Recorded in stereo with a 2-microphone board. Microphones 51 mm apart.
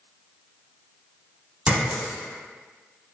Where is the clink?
25° right (ahead or behind), 1.1 m.